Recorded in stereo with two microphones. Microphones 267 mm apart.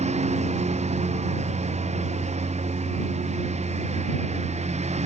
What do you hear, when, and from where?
0.0 s a lawn mower: 25° right (ahead or behind)